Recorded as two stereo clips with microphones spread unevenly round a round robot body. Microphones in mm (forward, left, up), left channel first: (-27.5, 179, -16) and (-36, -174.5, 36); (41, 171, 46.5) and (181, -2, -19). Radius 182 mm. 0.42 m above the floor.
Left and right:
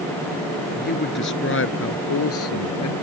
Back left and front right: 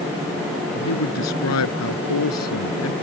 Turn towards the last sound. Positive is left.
turn(degrees=135)